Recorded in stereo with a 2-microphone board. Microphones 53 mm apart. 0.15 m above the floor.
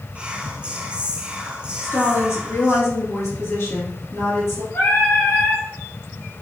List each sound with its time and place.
0.1 s whispering: 20° right (ahead or behind), 1.1 m
1.8 s a woman speaking: 55° left (ahead or behind), 2.5 m
4.7 s singing: 50° left (ahead or behind), 2.5 m